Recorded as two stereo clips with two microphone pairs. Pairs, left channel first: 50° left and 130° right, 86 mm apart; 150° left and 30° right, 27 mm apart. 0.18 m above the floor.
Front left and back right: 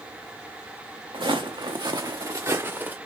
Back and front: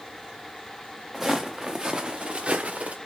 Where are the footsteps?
115° right, 1.2 m; by 3.0 s 65° right, 1.0 m.